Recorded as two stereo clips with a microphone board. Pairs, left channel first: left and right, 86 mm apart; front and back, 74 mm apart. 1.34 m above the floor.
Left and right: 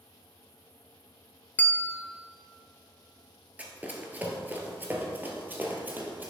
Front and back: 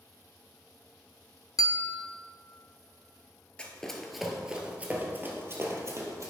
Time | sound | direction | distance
1.6 | a bell | 20° left | 0.5 m
3.6 | running footsteps | 50° right | 1.4 m